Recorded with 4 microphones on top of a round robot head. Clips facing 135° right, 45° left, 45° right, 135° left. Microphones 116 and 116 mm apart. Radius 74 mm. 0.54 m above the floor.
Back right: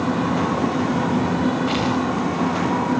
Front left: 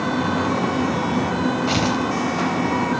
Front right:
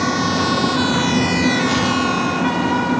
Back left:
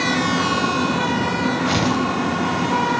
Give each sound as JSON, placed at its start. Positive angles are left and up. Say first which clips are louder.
{"t": 1.7, "sound": "tearing paper", "louder": "even, front right 1 dB", "azimuth_deg": 100, "distance_m": 3.5}